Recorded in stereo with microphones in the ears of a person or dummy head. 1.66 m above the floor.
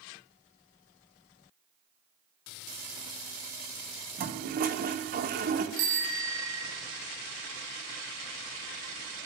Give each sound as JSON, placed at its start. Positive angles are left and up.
{"t": 4.2, "sound": "a toilet flushing", "side_deg": -45, "distance_m": 1.2}
{"t": 5.8, "sound": "a bicycle bell", "side_deg": -70, "distance_m": 3.0}